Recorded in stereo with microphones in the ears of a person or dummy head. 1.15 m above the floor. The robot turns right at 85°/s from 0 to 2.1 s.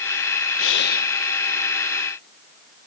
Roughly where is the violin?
No violin in this recording.